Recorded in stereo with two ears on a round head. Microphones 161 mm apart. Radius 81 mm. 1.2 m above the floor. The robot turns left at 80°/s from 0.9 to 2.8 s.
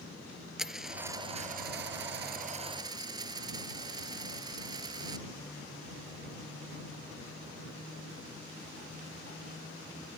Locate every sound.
0.6 s a dropped coin: 5° right; by 5.2 s 155° right